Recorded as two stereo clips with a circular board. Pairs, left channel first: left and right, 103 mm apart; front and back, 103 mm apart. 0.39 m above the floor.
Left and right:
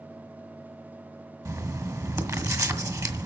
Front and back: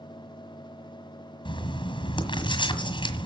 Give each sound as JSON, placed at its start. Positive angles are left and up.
{"t": 1.4, "sound": "writing", "azimuth_deg": -35, "distance_m": 1.6}